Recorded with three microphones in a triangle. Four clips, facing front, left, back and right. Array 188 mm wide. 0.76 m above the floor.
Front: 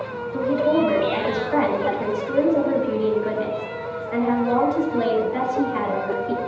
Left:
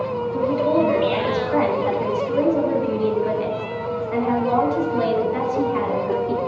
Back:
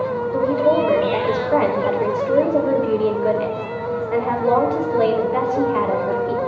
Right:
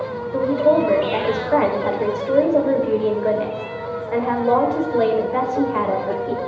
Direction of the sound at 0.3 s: 130° right.